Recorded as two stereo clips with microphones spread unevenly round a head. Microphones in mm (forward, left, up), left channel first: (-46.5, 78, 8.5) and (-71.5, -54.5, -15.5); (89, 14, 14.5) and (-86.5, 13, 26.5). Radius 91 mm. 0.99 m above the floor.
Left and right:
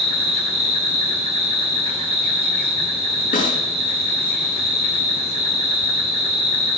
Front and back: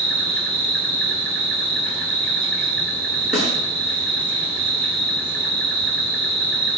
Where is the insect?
145° right, 5.5 m.